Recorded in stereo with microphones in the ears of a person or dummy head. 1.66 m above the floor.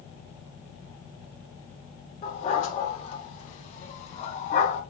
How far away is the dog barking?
About 5.5 m.